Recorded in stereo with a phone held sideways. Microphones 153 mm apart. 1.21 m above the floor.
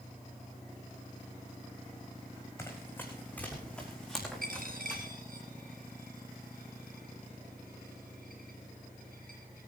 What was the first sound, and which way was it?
Running footsteps, 15° left (ahead or behind).